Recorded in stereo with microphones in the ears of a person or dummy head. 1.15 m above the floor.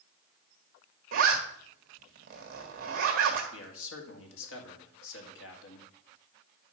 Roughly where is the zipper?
Right.